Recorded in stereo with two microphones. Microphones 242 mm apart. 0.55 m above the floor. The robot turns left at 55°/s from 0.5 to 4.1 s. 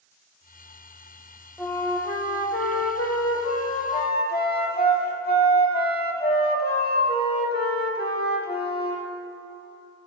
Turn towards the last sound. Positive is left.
turn(degrees=35)